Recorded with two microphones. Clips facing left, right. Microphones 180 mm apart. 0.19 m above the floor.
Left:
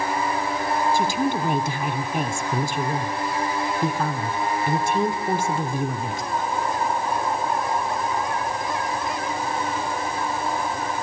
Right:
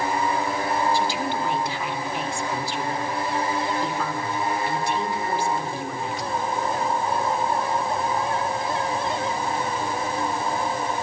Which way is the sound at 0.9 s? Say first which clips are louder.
Left 3 dB; 50° left (ahead or behind).